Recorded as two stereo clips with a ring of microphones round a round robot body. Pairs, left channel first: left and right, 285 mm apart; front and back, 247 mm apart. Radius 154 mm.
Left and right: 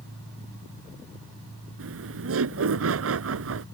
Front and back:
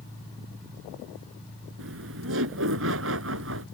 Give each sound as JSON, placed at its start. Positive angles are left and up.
{"t": 1.8, "sound": "laughter", "azimuth_deg": -135}